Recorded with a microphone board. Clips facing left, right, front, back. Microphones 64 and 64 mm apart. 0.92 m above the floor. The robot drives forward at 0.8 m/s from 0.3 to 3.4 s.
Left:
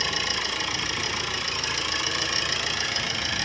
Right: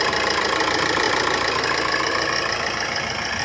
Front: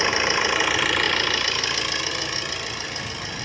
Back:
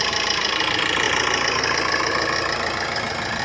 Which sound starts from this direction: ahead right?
An engine running, at 0.0 s.